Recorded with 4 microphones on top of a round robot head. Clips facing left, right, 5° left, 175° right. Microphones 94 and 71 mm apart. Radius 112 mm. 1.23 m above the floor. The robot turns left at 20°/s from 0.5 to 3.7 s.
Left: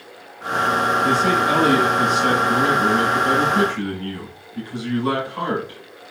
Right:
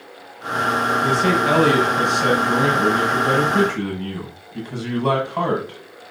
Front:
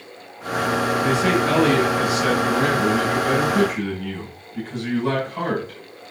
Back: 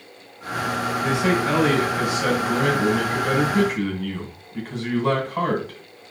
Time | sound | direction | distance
1.0 | a man speaking | 65° right | 7 m